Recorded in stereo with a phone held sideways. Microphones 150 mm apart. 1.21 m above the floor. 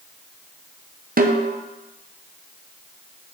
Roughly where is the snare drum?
Right.